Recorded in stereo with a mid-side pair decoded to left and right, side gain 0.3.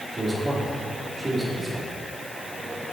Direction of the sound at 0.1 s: 35° right.